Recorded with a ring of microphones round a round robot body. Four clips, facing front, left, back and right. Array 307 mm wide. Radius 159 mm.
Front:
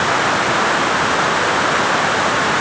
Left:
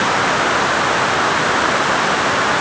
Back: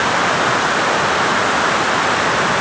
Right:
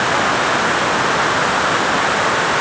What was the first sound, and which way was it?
Only background noise.